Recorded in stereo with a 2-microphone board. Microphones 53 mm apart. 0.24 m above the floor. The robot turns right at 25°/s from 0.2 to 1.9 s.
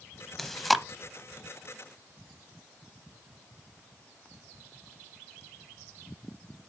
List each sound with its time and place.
0.4 s chewing: 5° left (ahead or behind), 0.6 m; by 0.8 s centre (ahead or behind), 0.6 m